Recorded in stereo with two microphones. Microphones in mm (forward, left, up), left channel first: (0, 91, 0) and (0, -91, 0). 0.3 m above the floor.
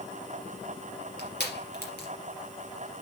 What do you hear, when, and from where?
1.2 s crushing: 65° left (ahead or behind), 3.5 m